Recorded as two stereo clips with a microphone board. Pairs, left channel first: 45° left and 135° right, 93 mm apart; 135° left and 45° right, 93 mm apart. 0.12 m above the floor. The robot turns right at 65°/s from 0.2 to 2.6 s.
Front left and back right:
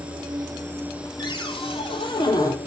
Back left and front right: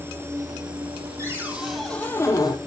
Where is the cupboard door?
10° left, 4.5 m; by 2.6 s 100° left, 4.5 m.